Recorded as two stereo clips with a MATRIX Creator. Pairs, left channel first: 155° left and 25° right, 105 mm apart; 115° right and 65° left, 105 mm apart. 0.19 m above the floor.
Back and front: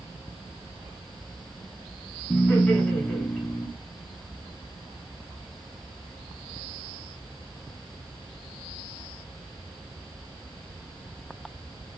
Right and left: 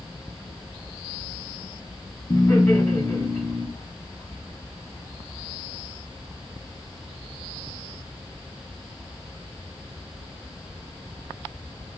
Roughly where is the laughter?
Behind right.